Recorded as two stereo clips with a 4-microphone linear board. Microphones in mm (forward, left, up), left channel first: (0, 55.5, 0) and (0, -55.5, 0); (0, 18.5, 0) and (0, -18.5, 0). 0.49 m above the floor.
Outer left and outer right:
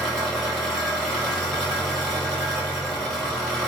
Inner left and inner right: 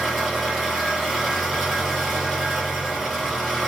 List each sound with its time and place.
0.0 s an engine running: 5° left (ahead or behind), 1.2 m